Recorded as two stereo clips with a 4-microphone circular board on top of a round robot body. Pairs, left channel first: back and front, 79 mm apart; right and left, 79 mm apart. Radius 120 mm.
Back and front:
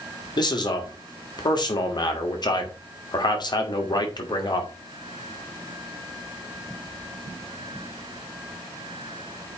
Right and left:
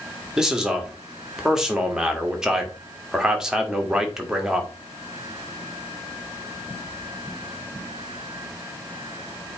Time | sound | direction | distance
0.4 | a man speaking | 170° left | 2 m